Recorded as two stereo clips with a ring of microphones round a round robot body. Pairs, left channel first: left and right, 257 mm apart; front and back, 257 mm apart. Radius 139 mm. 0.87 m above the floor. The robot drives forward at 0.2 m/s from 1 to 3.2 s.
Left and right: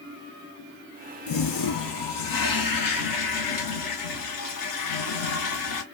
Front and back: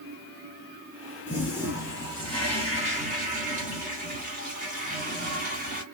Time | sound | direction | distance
1.3 | a toilet flushing | 95° left | 0.9 m